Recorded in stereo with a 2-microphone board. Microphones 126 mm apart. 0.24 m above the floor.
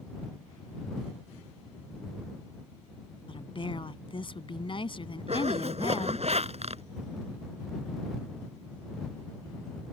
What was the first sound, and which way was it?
A woman speaking, 45° left (ahead or behind).